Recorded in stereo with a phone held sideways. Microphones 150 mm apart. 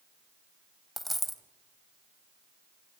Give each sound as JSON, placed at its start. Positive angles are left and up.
{"t": 1.0, "sound": "a dropped coin", "side_deg": 0, "distance_m": 1.2}